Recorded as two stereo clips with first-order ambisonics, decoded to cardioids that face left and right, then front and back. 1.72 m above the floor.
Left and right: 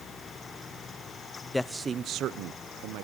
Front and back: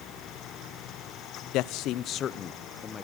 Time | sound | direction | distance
1.5 | a man speaking | 10° left | 0.6 m